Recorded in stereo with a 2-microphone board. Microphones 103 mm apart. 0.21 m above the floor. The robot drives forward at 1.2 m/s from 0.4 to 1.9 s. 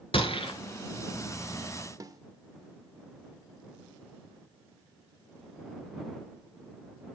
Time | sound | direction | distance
0.1 | a gunshot | 65° left (ahead or behind) | 1.7 m
2.0 | a snare drum | 35° right (ahead or behind) | 0.8 m